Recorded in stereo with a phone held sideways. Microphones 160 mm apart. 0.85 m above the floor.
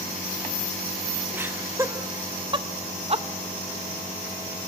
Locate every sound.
1.3 s laughter: 15° right (ahead or behind), 1.4 m; by 3.2 s 40° right (ahead or behind), 1.0 m